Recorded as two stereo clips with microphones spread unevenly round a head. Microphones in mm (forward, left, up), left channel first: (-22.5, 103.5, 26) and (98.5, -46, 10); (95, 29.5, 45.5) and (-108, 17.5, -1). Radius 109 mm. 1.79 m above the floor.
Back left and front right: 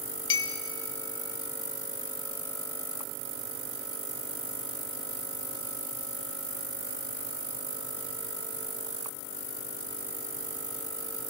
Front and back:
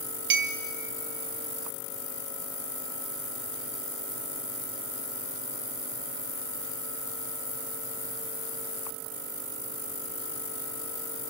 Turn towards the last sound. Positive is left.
turn(degrees=150)